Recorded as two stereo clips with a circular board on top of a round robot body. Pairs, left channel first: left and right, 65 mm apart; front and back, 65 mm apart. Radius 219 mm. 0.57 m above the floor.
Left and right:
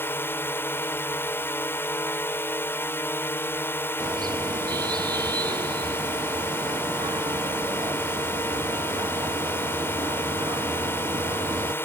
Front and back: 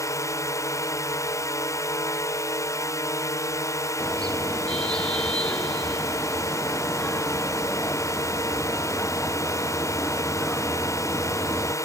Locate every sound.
0.0 s a drone: 35° left
4.0 s a car horn: 80° right